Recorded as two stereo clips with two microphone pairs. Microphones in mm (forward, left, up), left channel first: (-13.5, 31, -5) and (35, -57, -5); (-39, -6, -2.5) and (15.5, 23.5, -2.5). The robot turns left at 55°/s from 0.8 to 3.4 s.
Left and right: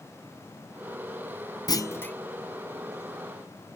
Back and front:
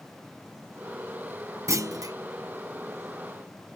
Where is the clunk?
65° left; by 2.1 s 40° left.